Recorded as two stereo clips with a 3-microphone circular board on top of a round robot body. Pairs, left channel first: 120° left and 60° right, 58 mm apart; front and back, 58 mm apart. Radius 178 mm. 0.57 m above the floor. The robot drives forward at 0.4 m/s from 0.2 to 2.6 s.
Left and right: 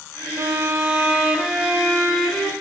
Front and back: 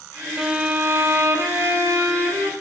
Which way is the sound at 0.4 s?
105° right.